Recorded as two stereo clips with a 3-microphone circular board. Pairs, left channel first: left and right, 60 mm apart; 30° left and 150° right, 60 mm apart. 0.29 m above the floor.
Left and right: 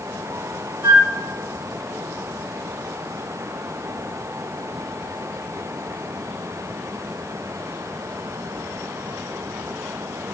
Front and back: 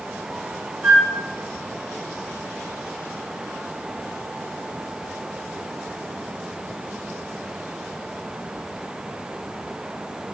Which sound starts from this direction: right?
A flute, at 0.8 s.